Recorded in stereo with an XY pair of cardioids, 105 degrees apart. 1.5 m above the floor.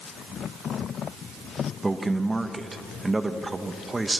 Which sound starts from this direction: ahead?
A man speaking, at 1.8 s.